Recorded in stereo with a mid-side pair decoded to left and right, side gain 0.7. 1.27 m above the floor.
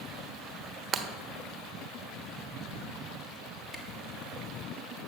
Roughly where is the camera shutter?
Ahead.